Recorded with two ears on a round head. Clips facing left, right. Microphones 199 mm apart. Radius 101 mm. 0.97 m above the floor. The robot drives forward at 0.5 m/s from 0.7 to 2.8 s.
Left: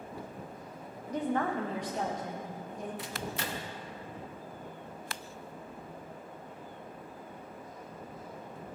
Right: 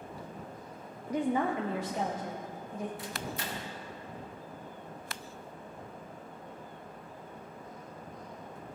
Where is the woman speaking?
10° right (ahead or behind), 0.6 m; by 2.9 s 5° right (ahead or behind), 1.4 m.